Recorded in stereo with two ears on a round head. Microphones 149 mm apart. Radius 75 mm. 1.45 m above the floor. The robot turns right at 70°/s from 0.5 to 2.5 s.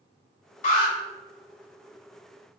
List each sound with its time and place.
0.6 s an alarm: 50° left (ahead or behind), 2.5 m; by 0.9 s 30° left (ahead or behind), 2.5 m